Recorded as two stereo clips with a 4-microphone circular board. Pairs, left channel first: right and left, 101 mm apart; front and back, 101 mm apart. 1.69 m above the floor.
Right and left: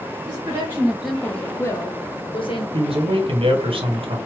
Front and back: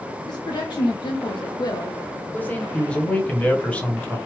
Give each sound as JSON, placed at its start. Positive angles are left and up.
{"t": 0.3, "sound": "a woman speaking", "azimuth_deg": 35, "distance_m": 0.8}
{"t": 2.7, "sound": "a man speaking", "azimuth_deg": 75, "distance_m": 1.0}